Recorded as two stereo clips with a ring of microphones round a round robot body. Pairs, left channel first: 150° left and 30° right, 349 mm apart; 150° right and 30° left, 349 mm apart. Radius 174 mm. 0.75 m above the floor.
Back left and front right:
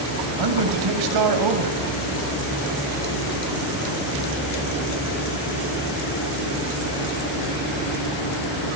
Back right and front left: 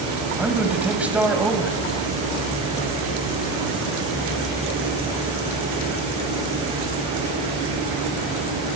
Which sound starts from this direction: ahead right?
A man speaking, at 0.4 s.